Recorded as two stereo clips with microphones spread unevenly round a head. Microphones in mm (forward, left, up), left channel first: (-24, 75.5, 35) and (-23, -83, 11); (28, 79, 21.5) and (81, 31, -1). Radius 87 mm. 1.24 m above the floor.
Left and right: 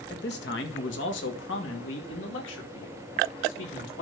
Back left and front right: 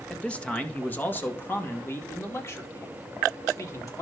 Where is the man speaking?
55° left, 1.6 m; by 4.0 s 90° left, 3.5 m.